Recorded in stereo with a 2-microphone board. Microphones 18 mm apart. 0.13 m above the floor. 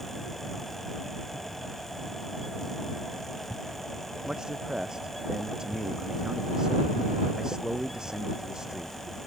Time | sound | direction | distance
4.2 | a man speaking | 40° right (ahead or behind) | ?